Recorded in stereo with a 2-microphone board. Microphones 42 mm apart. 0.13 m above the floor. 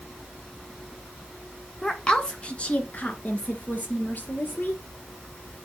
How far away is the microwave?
No microwave in this recording.